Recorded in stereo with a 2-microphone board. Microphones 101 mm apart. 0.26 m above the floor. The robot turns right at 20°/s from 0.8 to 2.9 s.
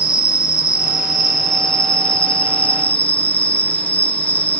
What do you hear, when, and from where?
0.0 s an insect: 35° left, 2 m; by 4.6 s 75° left, 2 m